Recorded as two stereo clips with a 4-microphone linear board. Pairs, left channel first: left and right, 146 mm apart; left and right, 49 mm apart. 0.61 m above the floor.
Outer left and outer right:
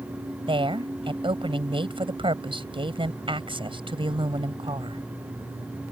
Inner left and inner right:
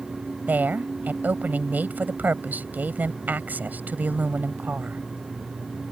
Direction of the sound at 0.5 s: 40° right (ahead or behind).